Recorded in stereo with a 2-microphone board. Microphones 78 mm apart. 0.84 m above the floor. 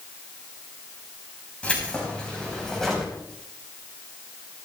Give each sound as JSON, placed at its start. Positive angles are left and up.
{"t": 1.6, "sound": "keys jangling", "side_deg": 15, "distance_m": 4.5}